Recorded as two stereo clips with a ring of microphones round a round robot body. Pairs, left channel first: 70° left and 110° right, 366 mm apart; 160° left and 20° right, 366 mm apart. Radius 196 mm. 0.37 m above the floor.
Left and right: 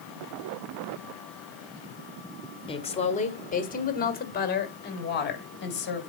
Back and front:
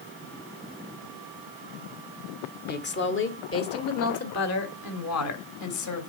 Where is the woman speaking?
130° left, 1.5 m; by 6.1 s 125° left, 3 m.